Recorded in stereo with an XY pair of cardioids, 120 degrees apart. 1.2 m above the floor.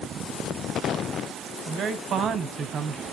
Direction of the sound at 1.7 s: 50° right.